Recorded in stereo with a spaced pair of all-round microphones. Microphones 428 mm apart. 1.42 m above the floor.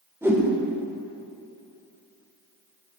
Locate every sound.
0.2 s a whoosh: 5° right (ahead or behind), 1.9 m